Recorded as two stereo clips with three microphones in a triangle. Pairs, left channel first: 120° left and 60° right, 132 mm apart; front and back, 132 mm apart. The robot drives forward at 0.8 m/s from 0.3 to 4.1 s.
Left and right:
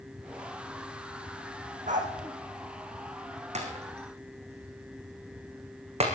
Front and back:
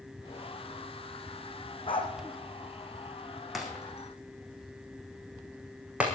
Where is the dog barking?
50° right, 3 m.